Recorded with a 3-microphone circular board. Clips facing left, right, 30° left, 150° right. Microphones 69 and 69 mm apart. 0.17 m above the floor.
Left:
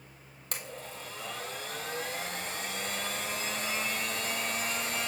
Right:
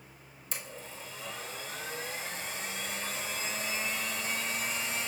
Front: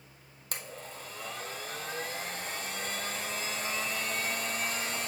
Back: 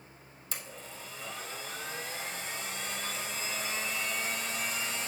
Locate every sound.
0.5 s a blender: 65° left, 1.0 m